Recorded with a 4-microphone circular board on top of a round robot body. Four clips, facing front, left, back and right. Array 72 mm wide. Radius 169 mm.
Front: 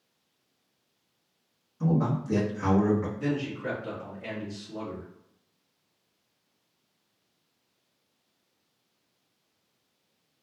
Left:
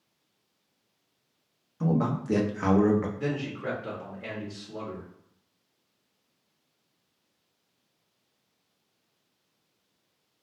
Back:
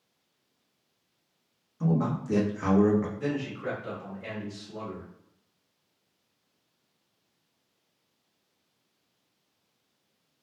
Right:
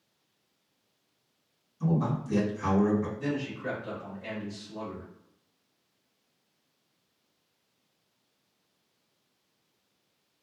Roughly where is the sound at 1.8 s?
Left.